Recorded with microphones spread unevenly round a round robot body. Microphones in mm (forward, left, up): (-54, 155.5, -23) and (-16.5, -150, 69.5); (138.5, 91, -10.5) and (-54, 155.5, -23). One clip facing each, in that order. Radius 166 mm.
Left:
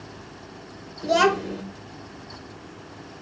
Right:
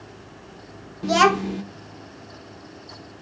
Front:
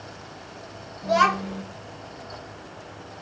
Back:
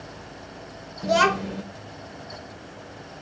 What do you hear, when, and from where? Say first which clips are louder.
1.0 s a child speaking: right 1 dB, back 2 dB; 165° right, 0.8 m